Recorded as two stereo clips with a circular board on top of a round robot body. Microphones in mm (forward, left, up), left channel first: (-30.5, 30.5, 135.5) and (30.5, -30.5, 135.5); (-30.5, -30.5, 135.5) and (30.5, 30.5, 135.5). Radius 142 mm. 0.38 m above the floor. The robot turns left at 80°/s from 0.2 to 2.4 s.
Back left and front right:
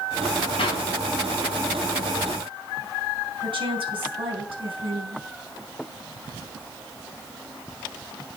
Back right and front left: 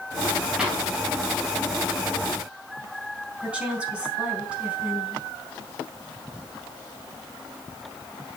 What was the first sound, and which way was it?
A clap, 125° left.